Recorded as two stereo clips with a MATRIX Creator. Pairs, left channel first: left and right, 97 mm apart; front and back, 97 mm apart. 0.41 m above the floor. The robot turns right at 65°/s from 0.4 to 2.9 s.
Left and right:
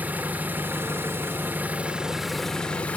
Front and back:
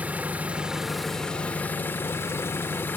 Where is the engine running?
130° right, 1.0 m; by 3.0 s 35° left, 1.0 m.